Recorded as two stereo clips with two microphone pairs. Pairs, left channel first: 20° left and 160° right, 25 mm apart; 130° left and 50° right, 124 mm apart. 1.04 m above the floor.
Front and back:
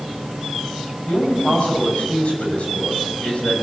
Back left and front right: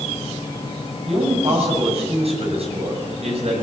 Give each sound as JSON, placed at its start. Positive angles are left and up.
{"t": 1.1, "sound": "a man speaking", "azimuth_deg": -15, "distance_m": 7.0}